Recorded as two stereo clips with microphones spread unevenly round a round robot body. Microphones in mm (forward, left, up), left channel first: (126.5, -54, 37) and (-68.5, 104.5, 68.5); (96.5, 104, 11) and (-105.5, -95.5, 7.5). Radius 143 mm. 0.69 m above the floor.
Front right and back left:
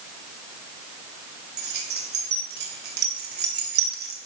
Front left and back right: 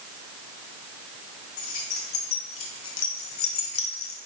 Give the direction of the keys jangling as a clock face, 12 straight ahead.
9 o'clock.